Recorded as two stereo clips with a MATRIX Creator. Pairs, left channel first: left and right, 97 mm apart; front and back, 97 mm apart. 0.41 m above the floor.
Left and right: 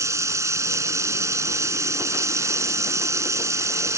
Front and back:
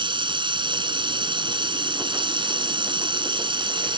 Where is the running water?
150° right.